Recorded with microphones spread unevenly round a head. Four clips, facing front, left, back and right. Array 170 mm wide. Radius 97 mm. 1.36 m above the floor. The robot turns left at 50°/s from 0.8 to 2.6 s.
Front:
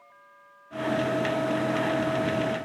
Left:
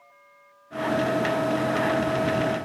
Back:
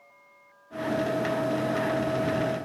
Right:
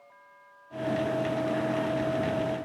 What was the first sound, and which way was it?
Only background noise.